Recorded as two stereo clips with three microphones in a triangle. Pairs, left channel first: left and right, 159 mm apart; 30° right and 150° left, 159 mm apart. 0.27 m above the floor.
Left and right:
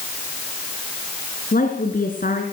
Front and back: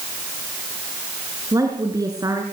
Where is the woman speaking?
85° left, 3 m.